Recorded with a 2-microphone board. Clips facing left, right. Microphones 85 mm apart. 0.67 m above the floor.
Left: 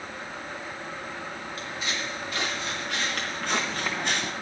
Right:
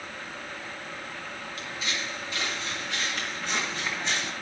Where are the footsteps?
45° left (ahead or behind), 4 m; by 4.3 s 60° left (ahead or behind), 1.3 m.